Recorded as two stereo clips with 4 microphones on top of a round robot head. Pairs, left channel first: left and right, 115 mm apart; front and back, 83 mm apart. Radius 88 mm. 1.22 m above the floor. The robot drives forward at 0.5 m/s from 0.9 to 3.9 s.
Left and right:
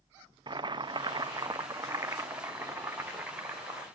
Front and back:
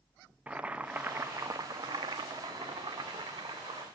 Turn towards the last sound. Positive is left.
turn(degrees=-170)